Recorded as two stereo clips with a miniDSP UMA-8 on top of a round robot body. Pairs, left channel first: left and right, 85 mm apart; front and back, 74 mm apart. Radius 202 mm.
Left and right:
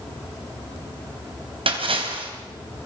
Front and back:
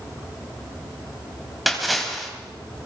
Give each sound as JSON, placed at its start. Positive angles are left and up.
{"t": 1.7, "sound": "a splash", "azimuth_deg": -90, "distance_m": 3.0}